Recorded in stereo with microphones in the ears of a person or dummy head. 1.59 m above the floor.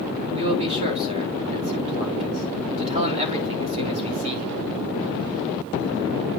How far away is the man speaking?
About 2 m.